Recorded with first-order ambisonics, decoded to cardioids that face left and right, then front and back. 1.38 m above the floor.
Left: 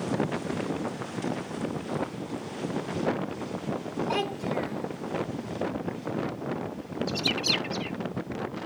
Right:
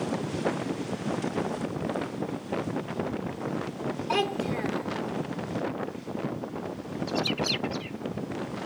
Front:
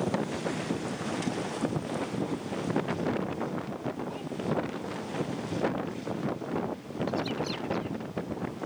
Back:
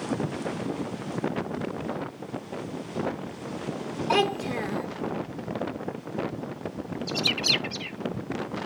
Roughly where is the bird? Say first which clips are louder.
Left 2 dB, back 9 dB; behind.